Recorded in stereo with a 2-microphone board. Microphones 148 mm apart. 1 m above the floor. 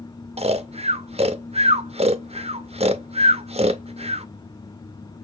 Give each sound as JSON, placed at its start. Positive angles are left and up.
{"t": 0.4, "sound": "snoring", "side_deg": -45, "distance_m": 0.6}